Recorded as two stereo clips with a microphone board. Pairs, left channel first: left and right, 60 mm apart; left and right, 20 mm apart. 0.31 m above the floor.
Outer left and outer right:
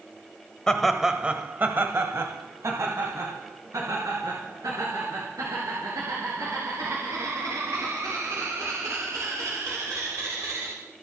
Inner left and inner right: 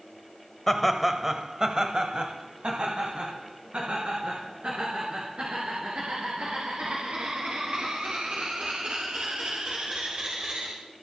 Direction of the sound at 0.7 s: 10° left (ahead or behind).